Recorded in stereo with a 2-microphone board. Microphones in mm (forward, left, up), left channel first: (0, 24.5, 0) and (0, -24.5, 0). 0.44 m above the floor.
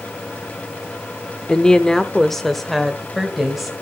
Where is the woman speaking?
20° left (ahead or behind), 0.7 m; by 3.7 s 5° right (ahead or behind), 1.9 m.